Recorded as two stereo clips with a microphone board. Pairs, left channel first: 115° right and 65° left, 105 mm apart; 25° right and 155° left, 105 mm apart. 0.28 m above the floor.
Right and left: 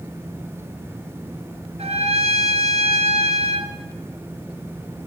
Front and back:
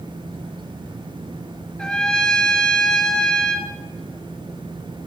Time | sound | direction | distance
1.8 | a trumpet | 60° left | 1.6 m